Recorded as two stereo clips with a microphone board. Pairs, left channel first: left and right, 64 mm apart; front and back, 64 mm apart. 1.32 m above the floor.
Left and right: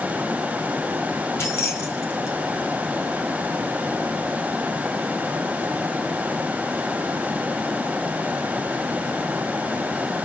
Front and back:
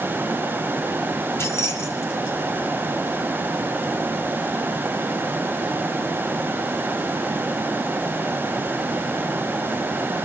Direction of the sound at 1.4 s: 40° left.